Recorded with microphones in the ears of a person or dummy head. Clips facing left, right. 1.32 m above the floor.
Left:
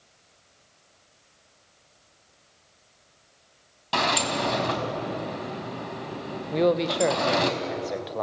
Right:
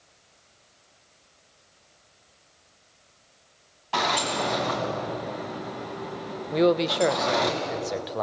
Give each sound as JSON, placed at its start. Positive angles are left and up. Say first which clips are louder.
{"t": 3.9, "sound": "a sliding door", "louder": "left 1 dB", "side_deg": 50, "distance_m": 2.5}
{"t": 6.5, "sound": "a man speaking", "louder": "right 1 dB", "side_deg": 0, "distance_m": 1.0}